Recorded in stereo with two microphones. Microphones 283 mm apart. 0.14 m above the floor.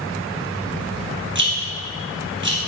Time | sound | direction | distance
1.4 | a rattle | 40° right (ahead or behind) | 2.5 m